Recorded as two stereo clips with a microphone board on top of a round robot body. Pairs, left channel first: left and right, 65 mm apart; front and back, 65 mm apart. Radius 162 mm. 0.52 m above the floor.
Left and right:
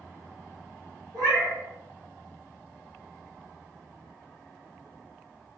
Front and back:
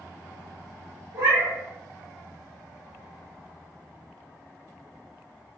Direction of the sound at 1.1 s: 130° right.